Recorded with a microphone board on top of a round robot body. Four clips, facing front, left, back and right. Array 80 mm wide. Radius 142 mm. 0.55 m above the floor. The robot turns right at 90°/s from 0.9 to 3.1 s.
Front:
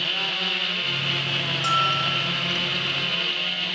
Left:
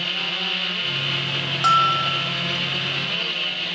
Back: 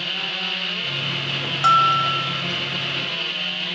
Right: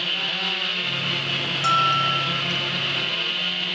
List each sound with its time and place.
1.6 s a bell: 160° left, 0.6 m; by 2.4 s 130° right, 0.6 m